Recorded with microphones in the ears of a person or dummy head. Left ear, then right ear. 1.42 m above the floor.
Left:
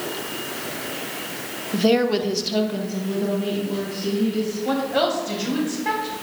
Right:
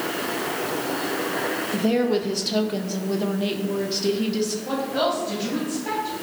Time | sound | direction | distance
1.7 | a woman speaking | 30° left (ahead or behind) | 0.7 m
4.7 | a woman speaking | 80° left | 3.5 m